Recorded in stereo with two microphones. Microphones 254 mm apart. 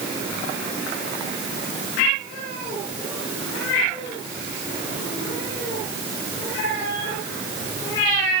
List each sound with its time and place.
Only background noise.